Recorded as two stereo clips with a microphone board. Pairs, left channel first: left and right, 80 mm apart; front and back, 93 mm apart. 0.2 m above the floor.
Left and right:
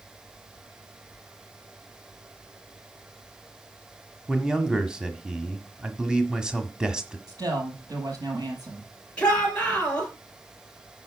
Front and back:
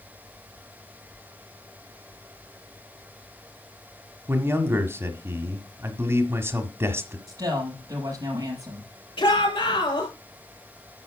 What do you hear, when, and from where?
4.3 s a man speaking: 160° right, 1.5 m
7.3 s a woman speaking: 130° right, 5.5 m
9.2 s a shout: 15° left, 4.5 m